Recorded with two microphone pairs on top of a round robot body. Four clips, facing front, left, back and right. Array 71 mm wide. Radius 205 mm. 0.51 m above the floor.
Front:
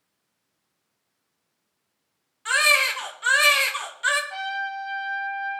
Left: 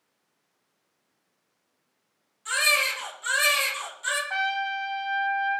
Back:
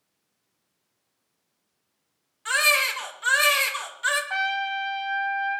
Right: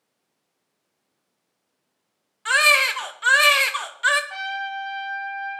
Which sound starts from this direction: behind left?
A trumpet, at 4.3 s.